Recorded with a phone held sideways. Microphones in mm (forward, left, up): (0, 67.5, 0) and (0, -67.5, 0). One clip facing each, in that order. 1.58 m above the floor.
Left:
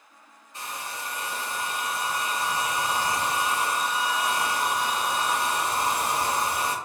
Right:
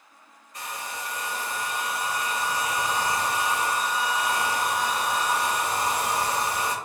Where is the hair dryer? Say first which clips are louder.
Right 1 dB; 25° left (ahead or behind), 1.0 m.